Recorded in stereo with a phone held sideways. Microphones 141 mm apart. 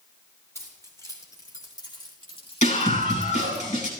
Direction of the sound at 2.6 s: 60° left (ahead or behind).